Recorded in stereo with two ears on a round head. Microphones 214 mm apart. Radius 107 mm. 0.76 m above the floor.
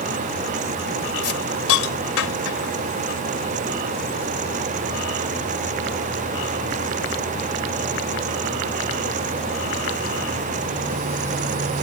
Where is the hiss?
65° left (ahead or behind).